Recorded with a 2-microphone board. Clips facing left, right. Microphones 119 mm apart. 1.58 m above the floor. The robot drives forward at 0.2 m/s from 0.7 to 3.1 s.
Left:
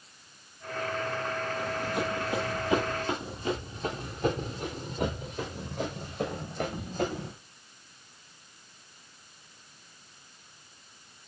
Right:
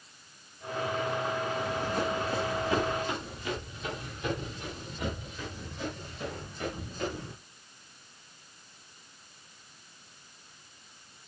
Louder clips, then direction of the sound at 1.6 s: Even; 5° left (ahead or behind).